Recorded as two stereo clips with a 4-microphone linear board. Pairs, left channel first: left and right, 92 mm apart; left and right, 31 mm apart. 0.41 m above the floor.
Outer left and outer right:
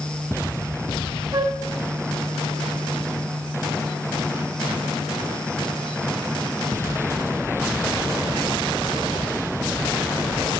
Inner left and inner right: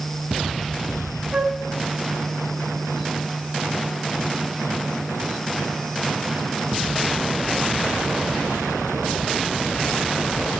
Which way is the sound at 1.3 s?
45° right (ahead or behind).